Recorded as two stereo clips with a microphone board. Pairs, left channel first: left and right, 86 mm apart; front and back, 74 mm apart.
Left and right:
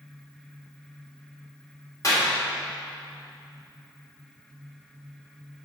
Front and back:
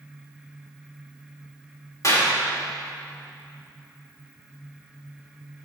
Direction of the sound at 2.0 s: 40° left.